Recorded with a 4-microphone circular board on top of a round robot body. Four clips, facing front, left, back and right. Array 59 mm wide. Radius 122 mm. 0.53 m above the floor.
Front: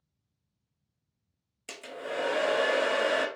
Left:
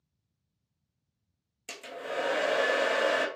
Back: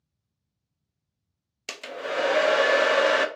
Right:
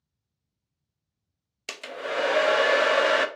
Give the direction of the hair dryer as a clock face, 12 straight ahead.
4 o'clock.